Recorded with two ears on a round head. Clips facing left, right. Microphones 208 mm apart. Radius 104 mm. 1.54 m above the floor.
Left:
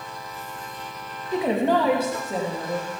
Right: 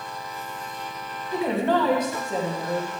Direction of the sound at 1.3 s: 20° left (ahead or behind).